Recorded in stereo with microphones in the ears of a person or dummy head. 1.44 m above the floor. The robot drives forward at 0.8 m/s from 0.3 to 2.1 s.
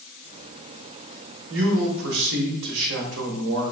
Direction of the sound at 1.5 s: 65° right (ahead or behind).